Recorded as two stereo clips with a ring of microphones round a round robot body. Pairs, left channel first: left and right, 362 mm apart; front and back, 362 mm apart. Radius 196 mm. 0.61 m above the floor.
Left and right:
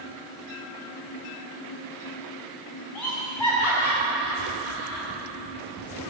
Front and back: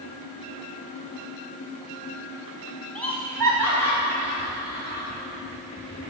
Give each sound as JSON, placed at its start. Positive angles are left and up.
{"t": 3.0, "sound": "laughter", "azimuth_deg": 85, "distance_m": 4.0}